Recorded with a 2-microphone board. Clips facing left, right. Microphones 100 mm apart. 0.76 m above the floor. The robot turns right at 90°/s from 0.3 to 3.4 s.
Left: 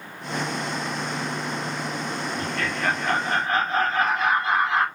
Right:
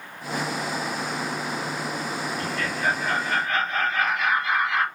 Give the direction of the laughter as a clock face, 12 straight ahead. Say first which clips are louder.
Left 1 dB; 10 o'clock.